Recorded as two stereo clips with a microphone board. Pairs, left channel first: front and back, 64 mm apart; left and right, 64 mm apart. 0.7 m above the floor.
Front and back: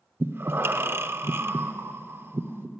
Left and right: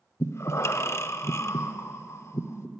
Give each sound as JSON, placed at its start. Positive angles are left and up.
{"t": 0.2, "sound": "breathing", "azimuth_deg": 130, "distance_m": 0.6}